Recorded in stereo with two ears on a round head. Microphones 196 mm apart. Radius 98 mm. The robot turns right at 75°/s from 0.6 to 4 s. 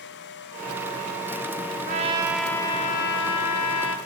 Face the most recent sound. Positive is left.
turn(degrees=120)